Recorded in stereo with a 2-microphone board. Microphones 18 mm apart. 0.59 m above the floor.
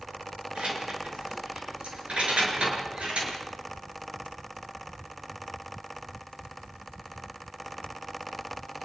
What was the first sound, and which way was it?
Keys jangling, 60° right (ahead or behind).